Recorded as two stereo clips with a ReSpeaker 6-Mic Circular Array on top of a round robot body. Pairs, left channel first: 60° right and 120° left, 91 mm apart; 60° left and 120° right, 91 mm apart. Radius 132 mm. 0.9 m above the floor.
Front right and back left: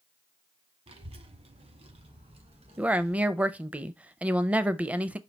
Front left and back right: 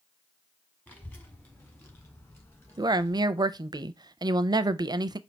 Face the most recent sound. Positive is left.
turn(degrees=-165)